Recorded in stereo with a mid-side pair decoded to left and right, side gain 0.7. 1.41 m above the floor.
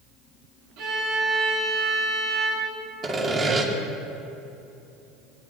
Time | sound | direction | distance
0.8 | a violin | 65° right | 4.5 m
3.0 | sawing | 25° right | 2.5 m